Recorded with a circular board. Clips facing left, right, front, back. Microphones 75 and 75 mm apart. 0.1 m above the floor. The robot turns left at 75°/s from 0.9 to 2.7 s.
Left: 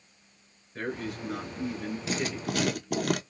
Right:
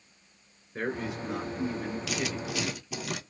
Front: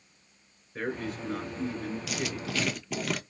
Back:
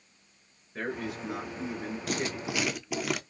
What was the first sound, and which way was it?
A man speaking, 100° right.